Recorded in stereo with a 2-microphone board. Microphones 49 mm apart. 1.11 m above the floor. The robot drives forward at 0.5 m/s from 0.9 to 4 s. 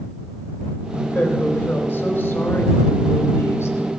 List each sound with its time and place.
1.1 s a woman speaking: 50° left (ahead or behind), 3 m; by 4.0 s 75° left (ahead or behind), 2.5 m